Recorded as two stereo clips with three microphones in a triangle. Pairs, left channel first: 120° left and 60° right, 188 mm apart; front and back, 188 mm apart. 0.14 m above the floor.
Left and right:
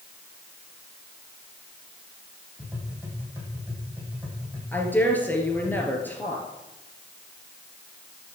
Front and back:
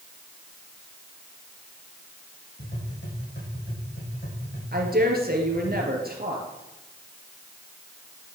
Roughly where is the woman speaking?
Behind.